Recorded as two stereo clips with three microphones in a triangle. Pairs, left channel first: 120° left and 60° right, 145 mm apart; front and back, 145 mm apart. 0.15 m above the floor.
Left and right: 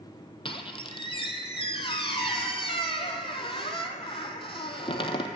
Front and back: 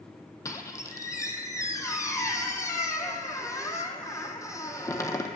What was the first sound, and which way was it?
A squeak, 65° left.